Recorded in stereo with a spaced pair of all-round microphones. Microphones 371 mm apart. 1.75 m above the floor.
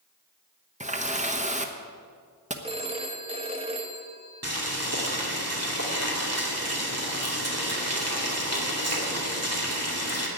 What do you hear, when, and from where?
0.8 s a running tap: 20° right (ahead or behind), 1.0 m
2.6 s a phone ringing: 15° right (ahead or behind), 1.2 m
4.4 s boiling: 40° right (ahead or behind), 2.5 m